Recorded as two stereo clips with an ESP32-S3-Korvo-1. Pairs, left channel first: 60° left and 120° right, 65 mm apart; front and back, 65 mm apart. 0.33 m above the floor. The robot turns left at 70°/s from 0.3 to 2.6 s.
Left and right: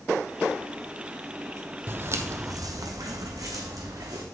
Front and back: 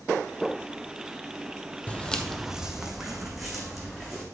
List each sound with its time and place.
1.9 s footsteps: 65° right, 0.6 m; by 4.2 s 85° right, 1.8 m